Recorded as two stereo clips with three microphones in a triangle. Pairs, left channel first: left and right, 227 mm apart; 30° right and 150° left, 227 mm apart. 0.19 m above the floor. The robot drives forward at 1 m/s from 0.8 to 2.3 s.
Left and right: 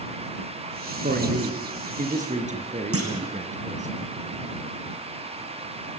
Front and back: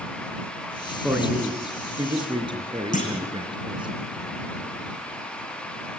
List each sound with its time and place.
1.0 s a man speaking: 125° right, 2.5 m; by 3.9 s 145° right, 3.5 m
2.9 s a clunk: 85° right, 3.5 m